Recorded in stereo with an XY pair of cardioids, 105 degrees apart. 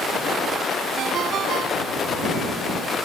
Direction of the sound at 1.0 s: 70° right.